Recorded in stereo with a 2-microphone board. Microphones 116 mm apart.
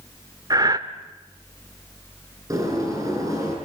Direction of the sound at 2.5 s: 30° right (ahead or behind).